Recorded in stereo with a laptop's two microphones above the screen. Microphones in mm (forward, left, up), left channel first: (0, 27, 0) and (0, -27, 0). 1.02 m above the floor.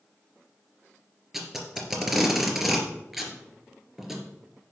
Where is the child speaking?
I don't hear a child speaking.